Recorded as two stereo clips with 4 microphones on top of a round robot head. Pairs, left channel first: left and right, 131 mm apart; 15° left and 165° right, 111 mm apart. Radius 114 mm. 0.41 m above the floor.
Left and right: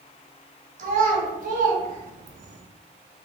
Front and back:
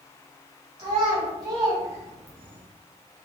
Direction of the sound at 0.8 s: 115° right.